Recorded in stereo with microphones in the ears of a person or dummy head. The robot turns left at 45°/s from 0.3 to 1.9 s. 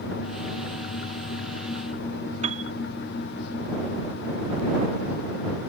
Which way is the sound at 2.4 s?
35° right (ahead or behind).